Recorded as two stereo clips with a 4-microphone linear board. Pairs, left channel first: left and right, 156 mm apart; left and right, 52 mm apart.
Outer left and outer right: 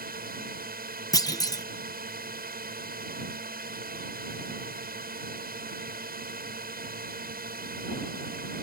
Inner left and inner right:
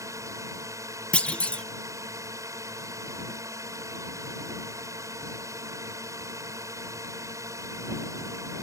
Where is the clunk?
25° left (ahead or behind).